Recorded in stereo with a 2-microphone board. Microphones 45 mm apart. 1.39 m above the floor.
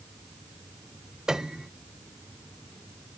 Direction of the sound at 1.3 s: 15° right (ahead or behind).